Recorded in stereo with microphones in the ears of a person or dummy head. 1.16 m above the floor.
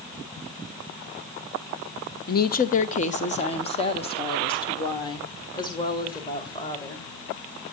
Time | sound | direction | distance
2.3 | a woman speaking | 45° left (ahead or behind) | 1.0 m